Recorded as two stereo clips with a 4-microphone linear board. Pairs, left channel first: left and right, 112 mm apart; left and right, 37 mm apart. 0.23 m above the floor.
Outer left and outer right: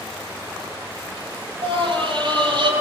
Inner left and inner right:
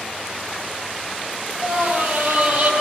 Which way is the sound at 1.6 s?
50° right (ahead or behind).